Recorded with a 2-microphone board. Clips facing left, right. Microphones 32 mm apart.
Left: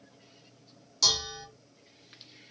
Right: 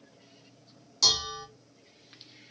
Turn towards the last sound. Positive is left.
turn(degrees=-10)  # may be behind; listen again after turning